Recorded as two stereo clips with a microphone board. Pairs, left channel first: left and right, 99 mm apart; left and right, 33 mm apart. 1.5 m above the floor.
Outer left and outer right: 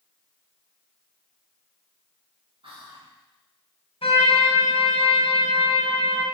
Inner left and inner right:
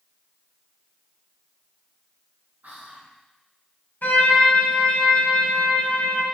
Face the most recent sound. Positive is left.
turn(degrees=65)  # may be behind; listen again after turning